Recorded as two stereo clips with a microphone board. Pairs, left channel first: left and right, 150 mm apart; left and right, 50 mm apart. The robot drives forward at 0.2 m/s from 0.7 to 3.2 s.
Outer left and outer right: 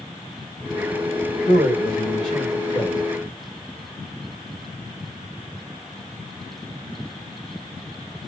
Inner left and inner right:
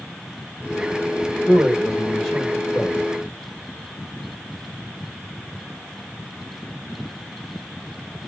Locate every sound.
1.5 s a man speaking: centre (ahead or behind), 4 m